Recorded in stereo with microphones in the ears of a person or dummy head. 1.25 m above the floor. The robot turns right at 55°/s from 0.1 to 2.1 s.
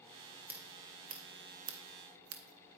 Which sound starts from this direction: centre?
Scissors, at 0.5 s.